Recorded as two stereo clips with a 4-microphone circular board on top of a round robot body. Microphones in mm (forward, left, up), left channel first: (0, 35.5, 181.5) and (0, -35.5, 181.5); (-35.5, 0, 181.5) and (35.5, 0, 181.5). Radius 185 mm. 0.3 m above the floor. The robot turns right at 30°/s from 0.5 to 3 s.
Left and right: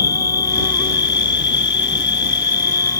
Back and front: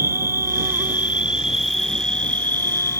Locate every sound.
0.0 s an insect: 55° left; by 3.0 s 130° left